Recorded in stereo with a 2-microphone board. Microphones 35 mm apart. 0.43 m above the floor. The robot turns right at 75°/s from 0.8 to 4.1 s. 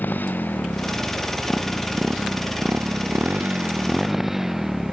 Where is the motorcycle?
60° left (ahead or behind); by 4.9 s 10° right (ahead or behind).